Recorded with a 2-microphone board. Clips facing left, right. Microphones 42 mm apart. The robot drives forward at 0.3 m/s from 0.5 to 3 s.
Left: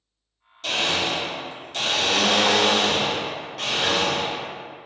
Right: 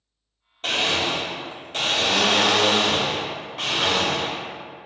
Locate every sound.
0.6 s a blender: 40° right (ahead or behind), 0.9 m; by 4.4 s 25° right (ahead or behind), 1.4 m